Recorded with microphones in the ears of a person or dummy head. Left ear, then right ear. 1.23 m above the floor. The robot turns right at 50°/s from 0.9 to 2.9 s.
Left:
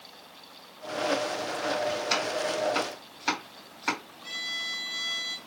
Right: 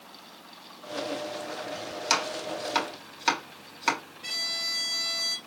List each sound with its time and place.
2.1 s chopping: 60° right (ahead or behind), 3 m; by 4.0 s 20° right (ahead or behind), 3 m
4.2 s a violin: 75° right (ahead or behind), 1.4 m